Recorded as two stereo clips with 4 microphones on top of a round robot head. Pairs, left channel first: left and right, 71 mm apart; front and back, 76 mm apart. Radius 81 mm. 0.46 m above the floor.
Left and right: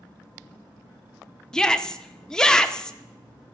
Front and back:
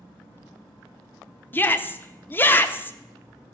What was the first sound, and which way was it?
A shout, 20° left.